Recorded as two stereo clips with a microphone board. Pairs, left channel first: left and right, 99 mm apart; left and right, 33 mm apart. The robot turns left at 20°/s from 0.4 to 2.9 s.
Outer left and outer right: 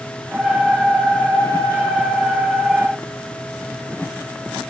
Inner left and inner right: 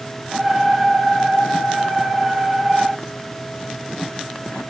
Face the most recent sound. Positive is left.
No sound to turn to.